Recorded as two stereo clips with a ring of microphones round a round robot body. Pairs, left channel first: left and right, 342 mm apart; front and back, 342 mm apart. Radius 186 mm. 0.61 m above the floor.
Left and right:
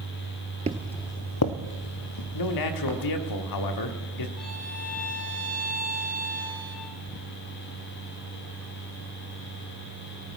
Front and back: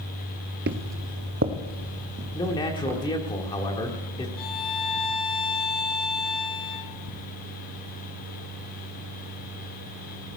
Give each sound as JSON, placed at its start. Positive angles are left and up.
{"t": 0.7, "sound": "footsteps", "azimuth_deg": -150, "distance_m": 0.6}
{"t": 2.3, "sound": "a man speaking", "azimuth_deg": 75, "distance_m": 1.3}
{"t": 4.4, "sound": "a violin", "azimuth_deg": 0, "distance_m": 1.9}